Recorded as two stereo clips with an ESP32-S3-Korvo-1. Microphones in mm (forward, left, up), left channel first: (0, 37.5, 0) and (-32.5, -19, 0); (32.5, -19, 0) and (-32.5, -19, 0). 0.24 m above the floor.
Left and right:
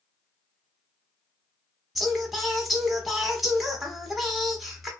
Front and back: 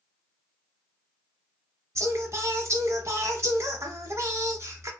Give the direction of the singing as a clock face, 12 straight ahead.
7 o'clock.